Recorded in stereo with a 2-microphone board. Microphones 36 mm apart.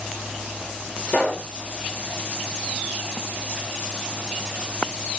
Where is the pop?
30° left (ahead or behind), 2.0 m.